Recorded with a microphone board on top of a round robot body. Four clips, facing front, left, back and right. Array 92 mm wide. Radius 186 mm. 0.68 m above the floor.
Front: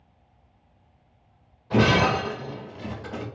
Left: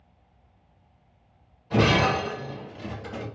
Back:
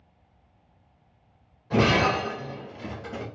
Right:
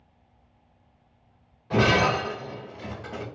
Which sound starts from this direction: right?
Breaking glass, at 1.7 s.